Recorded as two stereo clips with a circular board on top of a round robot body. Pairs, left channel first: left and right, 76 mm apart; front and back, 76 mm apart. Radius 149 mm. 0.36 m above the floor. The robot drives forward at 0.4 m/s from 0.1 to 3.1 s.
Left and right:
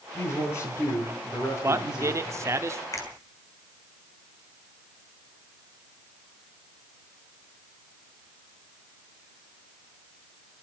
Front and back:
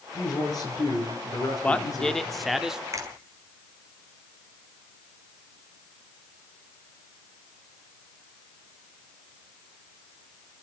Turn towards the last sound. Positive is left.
turn(degrees=135)